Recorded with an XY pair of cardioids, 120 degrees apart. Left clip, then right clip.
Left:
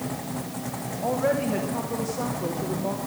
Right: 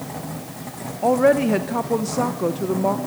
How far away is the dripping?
No dripping in this recording.